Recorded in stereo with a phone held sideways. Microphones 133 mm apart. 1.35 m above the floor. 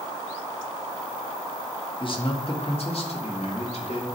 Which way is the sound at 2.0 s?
40° left (ahead or behind).